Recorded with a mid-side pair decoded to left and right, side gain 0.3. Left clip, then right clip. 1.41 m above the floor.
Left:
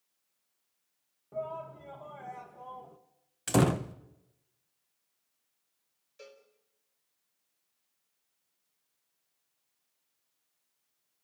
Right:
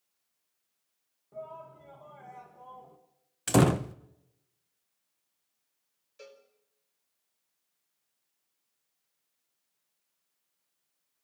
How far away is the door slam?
About 0.8 m.